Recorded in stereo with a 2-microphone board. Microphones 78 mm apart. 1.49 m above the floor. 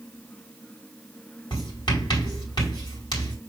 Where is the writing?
70° left (ahead or behind), 5 m.